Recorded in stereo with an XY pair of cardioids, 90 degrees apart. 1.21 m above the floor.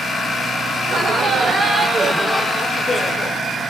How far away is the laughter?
About 1.7 m.